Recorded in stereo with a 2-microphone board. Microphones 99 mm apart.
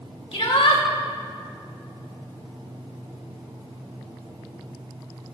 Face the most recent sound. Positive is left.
turn(degrees=70)  # may be behind; listen again after turning